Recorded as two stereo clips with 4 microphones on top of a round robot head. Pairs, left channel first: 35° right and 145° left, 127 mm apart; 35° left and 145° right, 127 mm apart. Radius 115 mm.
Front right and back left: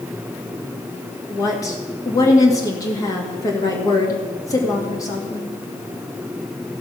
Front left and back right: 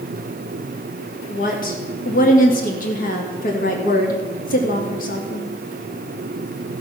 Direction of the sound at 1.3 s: 30° left.